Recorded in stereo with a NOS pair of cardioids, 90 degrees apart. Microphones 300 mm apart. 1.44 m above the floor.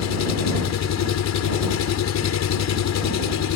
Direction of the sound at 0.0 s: 65° left.